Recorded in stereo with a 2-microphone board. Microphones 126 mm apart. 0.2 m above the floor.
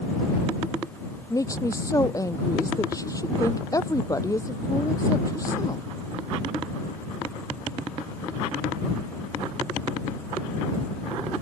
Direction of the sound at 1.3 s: 25° left (ahead or behind).